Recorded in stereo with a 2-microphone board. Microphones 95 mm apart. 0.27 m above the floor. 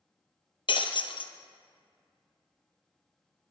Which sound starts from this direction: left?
Breaking glass, at 0.7 s.